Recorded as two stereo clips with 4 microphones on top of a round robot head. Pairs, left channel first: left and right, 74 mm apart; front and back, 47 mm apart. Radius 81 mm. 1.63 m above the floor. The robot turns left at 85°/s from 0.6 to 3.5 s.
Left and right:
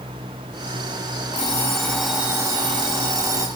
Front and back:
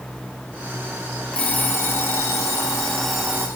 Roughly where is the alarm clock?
Ahead left.